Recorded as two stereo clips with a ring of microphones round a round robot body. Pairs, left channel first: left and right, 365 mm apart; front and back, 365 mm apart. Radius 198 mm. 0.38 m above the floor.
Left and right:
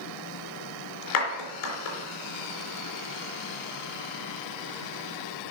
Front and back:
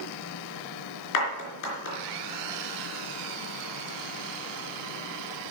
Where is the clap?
45° left, 4 m.